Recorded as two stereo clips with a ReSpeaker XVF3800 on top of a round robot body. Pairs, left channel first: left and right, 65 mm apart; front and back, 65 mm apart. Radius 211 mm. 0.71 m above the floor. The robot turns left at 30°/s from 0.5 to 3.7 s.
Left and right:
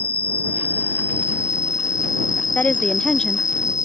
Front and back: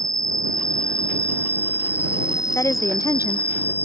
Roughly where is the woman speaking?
Ahead left.